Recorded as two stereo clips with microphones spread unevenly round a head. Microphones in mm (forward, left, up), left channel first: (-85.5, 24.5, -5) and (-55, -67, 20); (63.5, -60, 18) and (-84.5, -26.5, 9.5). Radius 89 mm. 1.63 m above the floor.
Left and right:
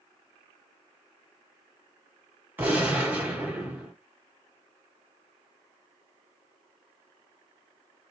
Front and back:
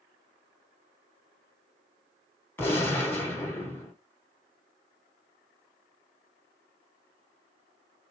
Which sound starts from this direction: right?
A gunshot, at 2.6 s.